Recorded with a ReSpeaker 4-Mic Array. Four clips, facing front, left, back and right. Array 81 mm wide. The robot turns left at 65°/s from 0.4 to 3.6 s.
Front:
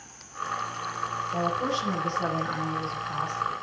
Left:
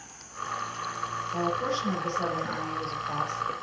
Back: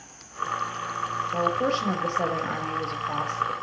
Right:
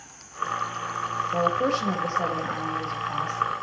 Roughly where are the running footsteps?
I don't hear running footsteps.